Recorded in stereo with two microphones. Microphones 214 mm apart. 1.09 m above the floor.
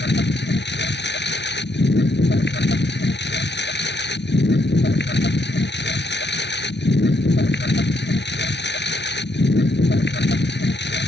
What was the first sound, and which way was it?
A lawn mower, 60° left (ahead or behind).